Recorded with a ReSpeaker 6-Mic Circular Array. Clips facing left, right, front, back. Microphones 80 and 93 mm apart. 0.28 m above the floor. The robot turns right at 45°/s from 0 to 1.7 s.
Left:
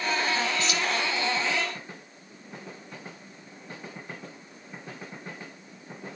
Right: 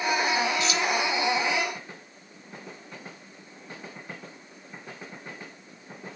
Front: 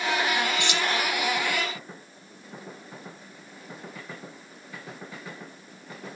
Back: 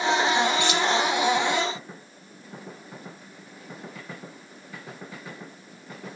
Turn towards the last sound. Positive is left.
turn(degrees=120)